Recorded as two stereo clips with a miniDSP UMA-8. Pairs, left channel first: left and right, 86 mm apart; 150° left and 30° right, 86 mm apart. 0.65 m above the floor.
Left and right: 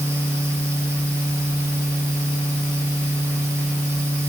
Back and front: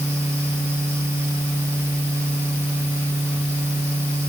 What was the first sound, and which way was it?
Only background noise.